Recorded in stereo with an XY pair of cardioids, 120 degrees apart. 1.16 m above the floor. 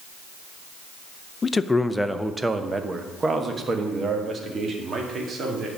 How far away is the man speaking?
About 0.6 m.